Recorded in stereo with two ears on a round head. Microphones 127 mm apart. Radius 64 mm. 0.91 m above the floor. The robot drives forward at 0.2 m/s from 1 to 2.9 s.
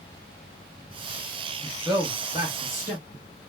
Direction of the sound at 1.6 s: 25° right (ahead or behind).